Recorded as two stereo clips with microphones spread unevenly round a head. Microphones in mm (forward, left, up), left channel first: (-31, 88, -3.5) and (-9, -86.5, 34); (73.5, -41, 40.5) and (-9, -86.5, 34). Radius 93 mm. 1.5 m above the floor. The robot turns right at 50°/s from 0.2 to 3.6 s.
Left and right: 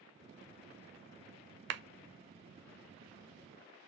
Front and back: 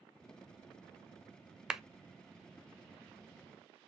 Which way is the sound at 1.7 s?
65° right.